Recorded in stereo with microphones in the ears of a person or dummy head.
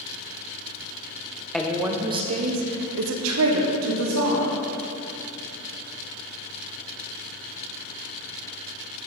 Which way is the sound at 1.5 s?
Centre (ahead or behind).